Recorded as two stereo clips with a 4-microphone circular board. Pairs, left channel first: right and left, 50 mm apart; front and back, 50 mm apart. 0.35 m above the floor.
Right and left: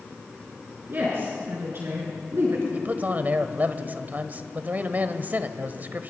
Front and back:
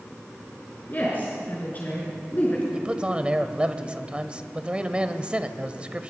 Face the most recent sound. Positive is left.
turn(degrees=120)